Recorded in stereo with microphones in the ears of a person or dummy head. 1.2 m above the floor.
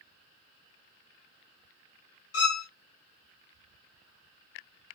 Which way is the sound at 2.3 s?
65° left (ahead or behind).